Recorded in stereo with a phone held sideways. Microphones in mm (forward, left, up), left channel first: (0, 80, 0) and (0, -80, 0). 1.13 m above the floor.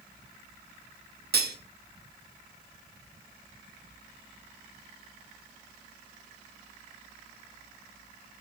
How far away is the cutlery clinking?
About 0.6 m.